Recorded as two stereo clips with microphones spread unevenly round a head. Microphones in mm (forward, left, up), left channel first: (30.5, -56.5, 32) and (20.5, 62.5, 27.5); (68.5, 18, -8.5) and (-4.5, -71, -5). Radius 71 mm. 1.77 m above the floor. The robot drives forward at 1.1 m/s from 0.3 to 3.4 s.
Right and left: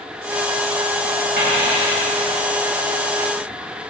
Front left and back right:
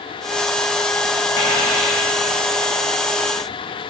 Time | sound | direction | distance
1.4 | a dropped coin | 120° left | 4.5 m